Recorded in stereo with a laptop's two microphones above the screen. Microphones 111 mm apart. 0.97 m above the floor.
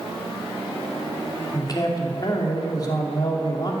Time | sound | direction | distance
1.5 | a man speaking | 40° left (ahead or behind) | 2.5 m